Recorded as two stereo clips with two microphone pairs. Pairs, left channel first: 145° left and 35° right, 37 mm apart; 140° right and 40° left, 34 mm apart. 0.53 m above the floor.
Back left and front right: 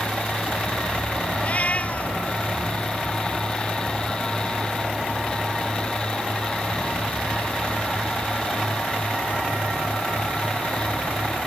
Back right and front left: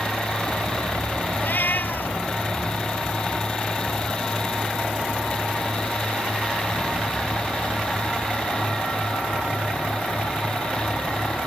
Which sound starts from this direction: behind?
A cat meowing, at 1.4 s.